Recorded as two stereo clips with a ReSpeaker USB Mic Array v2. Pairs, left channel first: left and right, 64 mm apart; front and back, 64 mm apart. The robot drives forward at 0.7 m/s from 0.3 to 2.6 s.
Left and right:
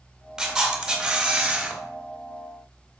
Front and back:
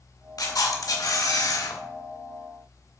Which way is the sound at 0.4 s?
10° right.